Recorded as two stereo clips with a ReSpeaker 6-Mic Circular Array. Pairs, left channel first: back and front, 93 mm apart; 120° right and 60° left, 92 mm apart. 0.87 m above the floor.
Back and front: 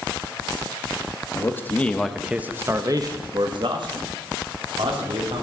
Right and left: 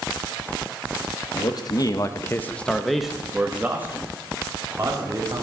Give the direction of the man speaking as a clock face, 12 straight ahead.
4 o'clock.